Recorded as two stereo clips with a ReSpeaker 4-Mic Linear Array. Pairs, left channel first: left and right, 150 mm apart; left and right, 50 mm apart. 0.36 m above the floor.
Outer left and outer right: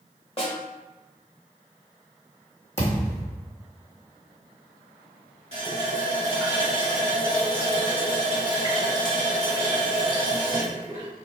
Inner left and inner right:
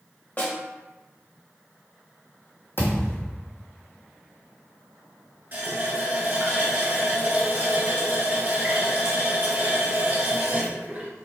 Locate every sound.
0.4 s a snare drum: 40° left (ahead or behind), 0.9 m
2.8 s a thud: 45° left (ahead or behind), 1.6 m
5.5 s a running tap: 45° right (ahead or behind), 1.1 m